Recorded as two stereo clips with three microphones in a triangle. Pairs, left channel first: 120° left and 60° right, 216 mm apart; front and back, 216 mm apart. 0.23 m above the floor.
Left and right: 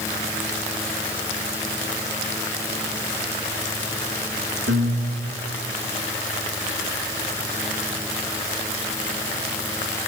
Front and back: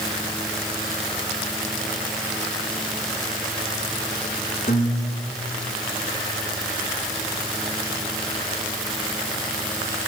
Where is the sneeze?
No sneeze in this recording.